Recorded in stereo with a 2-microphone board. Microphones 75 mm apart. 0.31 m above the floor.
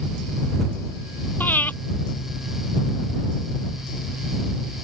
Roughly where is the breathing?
Left.